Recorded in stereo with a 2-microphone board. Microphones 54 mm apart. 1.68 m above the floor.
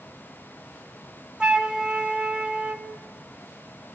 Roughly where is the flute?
Centre.